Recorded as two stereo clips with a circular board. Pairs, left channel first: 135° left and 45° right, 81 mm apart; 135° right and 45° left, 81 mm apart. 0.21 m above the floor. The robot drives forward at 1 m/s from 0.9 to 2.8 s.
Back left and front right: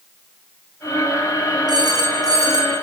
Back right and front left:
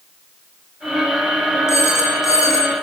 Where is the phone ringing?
80° right, 7.5 m; by 2.8 s 90° right, 7.5 m.